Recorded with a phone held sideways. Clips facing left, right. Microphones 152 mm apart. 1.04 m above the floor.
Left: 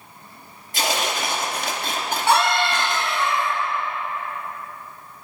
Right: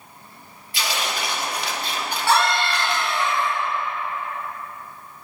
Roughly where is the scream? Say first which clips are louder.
Left 1 dB; left.